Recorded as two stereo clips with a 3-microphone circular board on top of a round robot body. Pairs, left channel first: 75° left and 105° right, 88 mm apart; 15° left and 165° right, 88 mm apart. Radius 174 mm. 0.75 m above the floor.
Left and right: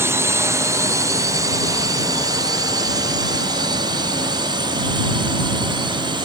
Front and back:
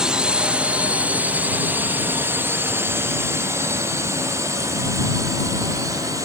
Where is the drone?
95° right; by 6.2 s 120° right.